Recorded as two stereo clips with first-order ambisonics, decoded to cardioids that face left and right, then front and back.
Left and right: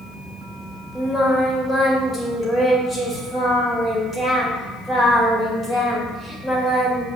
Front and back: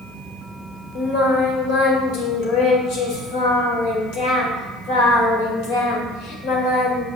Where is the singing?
10° left, 2.5 m.